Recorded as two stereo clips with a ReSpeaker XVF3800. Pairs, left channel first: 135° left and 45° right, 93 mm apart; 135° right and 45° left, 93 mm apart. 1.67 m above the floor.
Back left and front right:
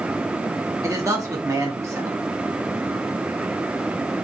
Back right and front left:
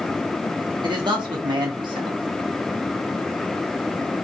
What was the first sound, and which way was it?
A man speaking, 10° left.